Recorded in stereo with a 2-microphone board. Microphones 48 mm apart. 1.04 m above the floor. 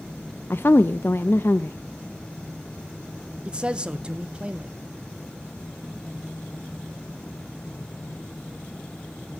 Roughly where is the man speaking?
Right.